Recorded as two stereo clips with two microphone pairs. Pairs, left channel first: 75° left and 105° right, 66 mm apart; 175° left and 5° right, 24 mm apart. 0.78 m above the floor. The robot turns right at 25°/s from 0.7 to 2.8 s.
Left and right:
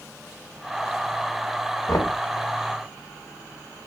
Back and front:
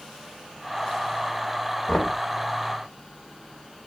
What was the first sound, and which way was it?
Knocking, 105° left.